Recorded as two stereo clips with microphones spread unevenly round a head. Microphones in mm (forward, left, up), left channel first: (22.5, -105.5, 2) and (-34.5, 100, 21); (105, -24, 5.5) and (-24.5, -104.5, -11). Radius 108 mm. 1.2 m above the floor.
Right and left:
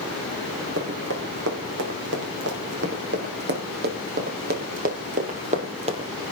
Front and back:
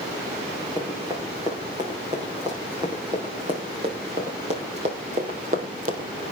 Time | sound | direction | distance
0.8 | running footsteps | 135° left | 5.5 m